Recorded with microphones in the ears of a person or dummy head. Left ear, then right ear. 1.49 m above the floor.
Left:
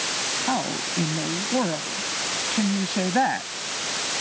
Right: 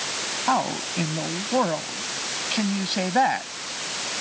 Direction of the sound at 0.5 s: 45° right (ahead or behind).